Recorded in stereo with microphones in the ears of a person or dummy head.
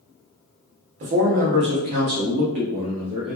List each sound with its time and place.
1.0 s a man speaking: 45° right (ahead or behind), 0.7 m; by 3.4 s 50° right (ahead or behind), 1.5 m